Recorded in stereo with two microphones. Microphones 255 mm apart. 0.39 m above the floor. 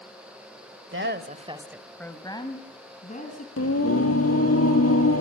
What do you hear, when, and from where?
0.9 s a woman speaking: 55° right (ahead or behind), 1.4 m; by 3.5 s 35° left (ahead or behind), 3.5 m
3.6 s singing: 70° left (ahead or behind), 1.8 m